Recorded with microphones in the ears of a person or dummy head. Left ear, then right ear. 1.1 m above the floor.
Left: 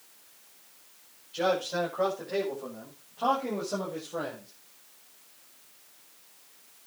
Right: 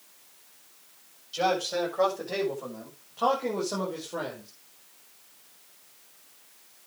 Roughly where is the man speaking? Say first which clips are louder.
Right 1 dB; right.